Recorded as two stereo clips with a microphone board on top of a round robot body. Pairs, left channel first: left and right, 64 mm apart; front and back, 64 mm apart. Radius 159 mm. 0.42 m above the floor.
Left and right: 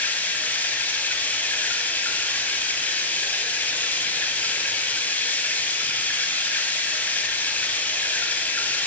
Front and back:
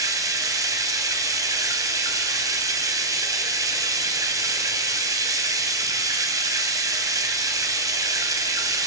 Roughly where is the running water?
Behind left.